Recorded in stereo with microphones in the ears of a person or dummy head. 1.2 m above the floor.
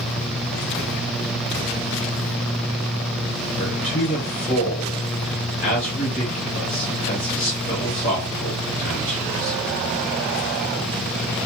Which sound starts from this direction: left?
A man speaking, at 3.6 s.